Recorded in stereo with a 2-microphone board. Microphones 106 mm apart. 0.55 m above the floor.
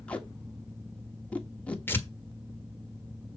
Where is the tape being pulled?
10° left (ahead or behind), 1.6 m.